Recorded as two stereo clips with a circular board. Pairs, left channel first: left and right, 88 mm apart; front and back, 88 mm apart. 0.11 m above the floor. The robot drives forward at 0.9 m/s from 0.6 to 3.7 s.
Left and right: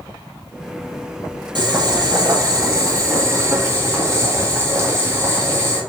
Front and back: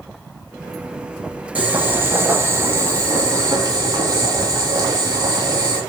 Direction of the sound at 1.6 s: 110° right.